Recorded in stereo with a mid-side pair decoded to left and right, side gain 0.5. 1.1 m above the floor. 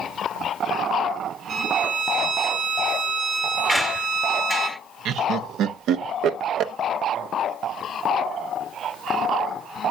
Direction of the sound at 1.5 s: 65° right.